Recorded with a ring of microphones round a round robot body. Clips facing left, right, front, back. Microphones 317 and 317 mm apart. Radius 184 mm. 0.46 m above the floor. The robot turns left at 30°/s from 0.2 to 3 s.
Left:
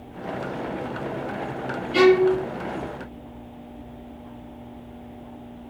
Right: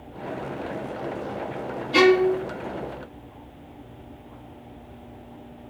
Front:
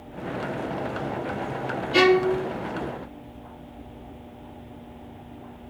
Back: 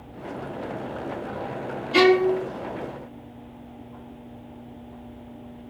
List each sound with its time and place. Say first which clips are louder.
1.9 s a violin: left 2 dB, back 2 dB; 100° right, 1.2 m; by 2.4 s 115° right, 1.2 m